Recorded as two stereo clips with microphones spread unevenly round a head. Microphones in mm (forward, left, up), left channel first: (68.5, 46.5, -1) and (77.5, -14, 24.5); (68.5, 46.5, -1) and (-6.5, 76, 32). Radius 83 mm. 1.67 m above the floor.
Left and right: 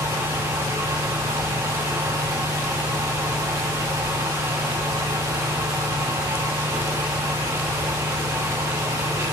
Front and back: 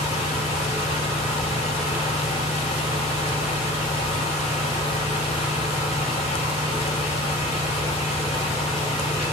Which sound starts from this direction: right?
A fan, at 0.0 s.